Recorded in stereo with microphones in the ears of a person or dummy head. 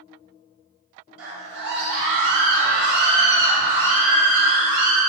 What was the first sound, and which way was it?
A scream, 65° right (ahead or behind).